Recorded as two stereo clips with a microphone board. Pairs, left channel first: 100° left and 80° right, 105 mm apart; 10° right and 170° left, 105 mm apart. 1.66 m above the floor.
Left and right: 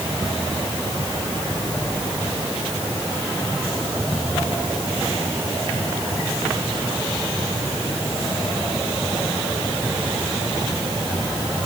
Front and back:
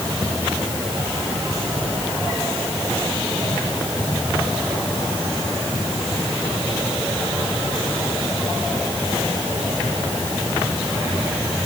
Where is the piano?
I don't hear a piano.